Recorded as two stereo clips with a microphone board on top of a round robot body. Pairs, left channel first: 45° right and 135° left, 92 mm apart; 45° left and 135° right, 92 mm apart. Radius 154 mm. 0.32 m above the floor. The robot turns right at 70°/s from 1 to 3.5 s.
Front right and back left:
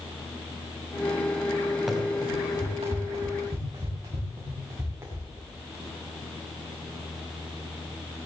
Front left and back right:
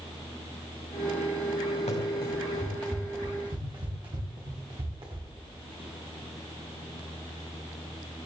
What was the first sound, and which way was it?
Running footsteps, 50° left.